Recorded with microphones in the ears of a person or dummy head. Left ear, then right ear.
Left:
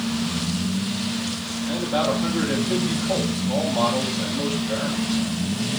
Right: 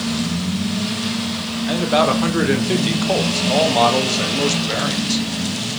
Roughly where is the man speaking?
Right.